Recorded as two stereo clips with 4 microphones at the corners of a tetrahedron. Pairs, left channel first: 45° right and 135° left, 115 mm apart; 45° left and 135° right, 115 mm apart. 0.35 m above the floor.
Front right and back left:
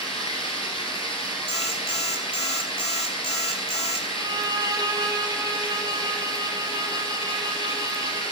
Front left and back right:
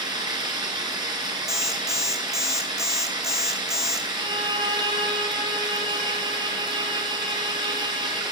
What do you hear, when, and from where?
0.0 s running water: 85° right, 2.5 m
1.5 s an alarm clock: 105° left, 1.4 m
4.2 s a violin: 175° right, 2 m